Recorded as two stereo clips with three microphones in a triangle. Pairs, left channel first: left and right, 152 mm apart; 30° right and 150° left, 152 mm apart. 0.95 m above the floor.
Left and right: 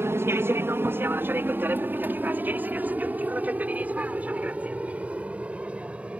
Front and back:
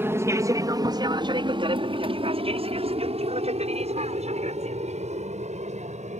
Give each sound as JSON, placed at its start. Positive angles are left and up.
{"t": 0.0, "sound": "an aircraft", "azimuth_deg": -150}